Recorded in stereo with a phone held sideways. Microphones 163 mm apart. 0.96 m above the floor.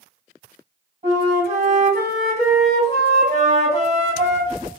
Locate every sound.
1.0 s a flute: 50° right (ahead or behind), 2.5 m